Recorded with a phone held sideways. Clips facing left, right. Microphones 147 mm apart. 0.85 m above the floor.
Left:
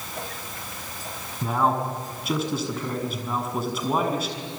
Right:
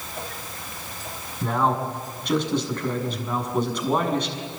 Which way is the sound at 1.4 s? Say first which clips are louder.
Even; 5° left (ahead or behind).